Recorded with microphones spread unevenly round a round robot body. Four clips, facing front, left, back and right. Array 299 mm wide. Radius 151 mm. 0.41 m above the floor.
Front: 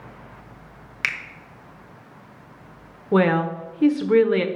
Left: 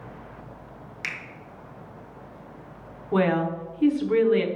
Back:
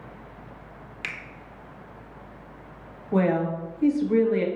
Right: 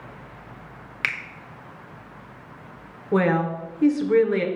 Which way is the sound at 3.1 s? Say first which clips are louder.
Right 2 dB, front 4 dB; 15° right.